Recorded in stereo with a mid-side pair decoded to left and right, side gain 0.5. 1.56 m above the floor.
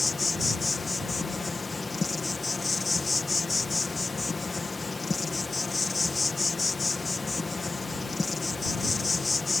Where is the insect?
20° left.